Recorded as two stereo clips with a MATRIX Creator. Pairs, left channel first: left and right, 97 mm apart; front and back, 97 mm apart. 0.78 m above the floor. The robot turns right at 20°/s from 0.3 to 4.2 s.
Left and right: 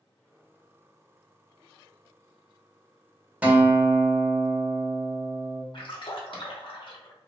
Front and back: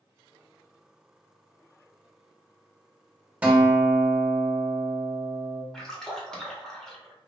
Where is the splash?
85° left, 0.6 m.